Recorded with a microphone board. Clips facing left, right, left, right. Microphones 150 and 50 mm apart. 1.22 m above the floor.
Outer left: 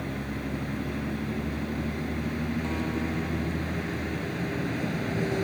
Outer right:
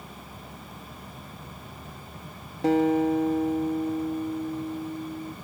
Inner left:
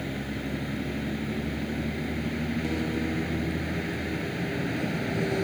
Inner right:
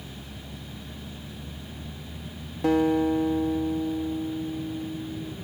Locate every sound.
0.0 s a vehicle: 80° left
2.6 s a guitar: 80° right